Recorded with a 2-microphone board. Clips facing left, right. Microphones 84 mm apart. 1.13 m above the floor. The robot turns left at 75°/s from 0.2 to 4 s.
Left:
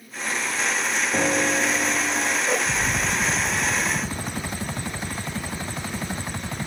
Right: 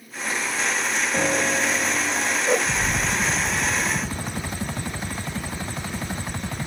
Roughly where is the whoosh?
Right.